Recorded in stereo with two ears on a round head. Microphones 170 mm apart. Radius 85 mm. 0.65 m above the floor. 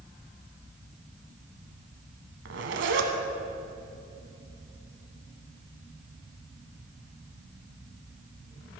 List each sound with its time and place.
2.5 s a zipper: 65° right (ahead or behind), 1.0 m